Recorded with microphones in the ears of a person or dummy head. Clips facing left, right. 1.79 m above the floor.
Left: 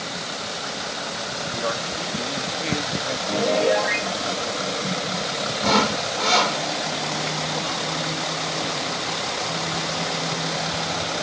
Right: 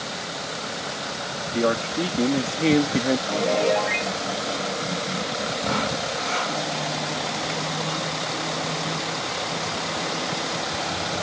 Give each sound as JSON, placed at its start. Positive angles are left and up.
{"t": 1.5, "sound": "a man speaking", "side_deg": -50}
{"t": 3.3, "sound": "a piano", "side_deg": 5}
{"t": 5.6, "sound": "sawing", "side_deg": 75}